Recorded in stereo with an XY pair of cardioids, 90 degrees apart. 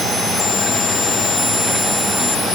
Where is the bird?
No bird in this recording.